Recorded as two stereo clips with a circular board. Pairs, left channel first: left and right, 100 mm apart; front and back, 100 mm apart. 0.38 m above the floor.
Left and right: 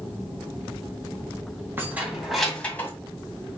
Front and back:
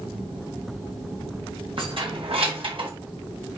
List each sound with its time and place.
1.8 s keys jangling: 155° right, 2.5 m; by 2.9 s 155° left, 2.0 m